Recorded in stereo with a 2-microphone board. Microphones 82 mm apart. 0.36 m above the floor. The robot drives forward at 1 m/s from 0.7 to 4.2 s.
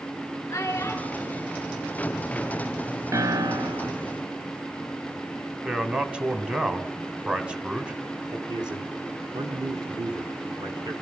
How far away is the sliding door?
No sliding door in this recording.